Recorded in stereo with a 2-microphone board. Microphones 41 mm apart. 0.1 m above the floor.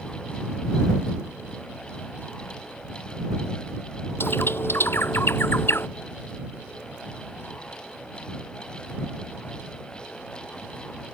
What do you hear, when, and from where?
4.2 s a bird: 65° left (ahead or behind)